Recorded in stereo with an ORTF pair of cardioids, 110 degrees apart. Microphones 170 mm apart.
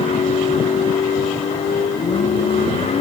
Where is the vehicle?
40° left.